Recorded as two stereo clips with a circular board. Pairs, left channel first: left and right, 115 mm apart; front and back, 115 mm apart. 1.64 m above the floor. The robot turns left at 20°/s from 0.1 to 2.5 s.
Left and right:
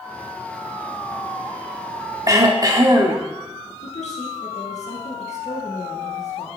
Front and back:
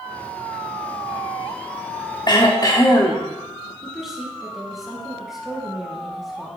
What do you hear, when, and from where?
2.3 s throat clearing: 40° right, 1.8 m; by 3.3 s 45° right, 1.8 m
3.8 s a woman speaking: 95° left, 2 m